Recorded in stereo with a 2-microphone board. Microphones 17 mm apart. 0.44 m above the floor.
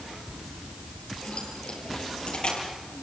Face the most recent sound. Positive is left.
turn(degrees=80)